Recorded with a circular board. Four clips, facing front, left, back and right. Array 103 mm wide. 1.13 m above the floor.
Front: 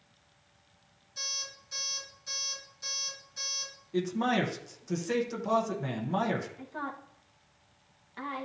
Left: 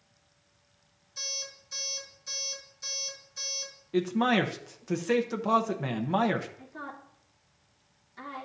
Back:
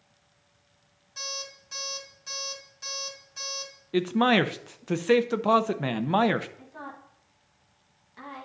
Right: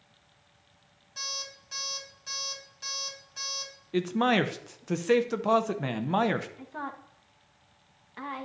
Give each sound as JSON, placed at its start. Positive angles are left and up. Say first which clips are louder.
{"t": 1.2, "sound": "an alarm clock", "louder": "right 3 dB, back 6 dB", "azimuth_deg": -125, "distance_m": 5.0}
{"t": 3.9, "sound": "a man speaking", "louder": "even, back 6 dB", "azimuth_deg": -165, "distance_m": 0.6}
{"t": 6.6, "sound": "a woman speaking", "louder": "right 4 dB, front 4 dB", "azimuth_deg": -70, "distance_m": 1.4}